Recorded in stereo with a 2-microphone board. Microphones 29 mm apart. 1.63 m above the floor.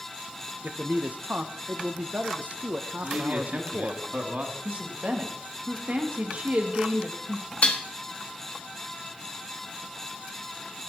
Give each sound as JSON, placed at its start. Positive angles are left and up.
{"t": 0.6, "sound": "a man speaking", "side_deg": -65, "distance_m": 1.1}
{"t": 3.0, "sound": "a man speaking", "side_deg": -60, "distance_m": 3.0}
{"t": 4.7, "sound": "a woman speaking", "side_deg": -55, "distance_m": 2.5}
{"t": 7.6, "sound": "dishes clattering", "side_deg": 50, "distance_m": 1.7}